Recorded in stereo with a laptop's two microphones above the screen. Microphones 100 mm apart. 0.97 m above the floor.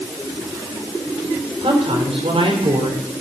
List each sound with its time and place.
1.6 s a woman speaking: 75° right (ahead or behind), 4 m